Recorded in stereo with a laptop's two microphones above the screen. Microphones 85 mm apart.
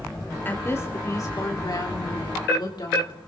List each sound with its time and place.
0.5 s a woman speaking: 25° left (ahead or behind), 2.5 m; by 3.2 s 65° left (ahead or behind), 4 m